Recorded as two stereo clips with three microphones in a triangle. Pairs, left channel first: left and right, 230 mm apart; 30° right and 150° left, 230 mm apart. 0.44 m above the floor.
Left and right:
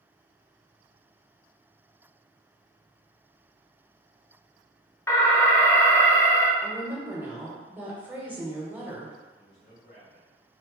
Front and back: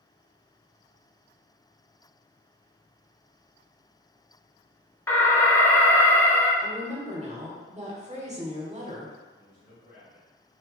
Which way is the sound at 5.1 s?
30° left.